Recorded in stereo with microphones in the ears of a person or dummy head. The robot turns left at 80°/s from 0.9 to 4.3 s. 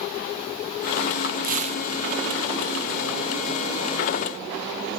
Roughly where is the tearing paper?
Behind right.